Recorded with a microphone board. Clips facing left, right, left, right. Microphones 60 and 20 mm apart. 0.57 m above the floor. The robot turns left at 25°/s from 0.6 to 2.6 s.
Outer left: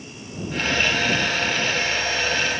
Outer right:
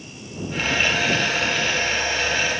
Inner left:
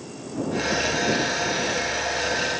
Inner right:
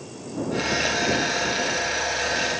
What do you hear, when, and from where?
Only background noise.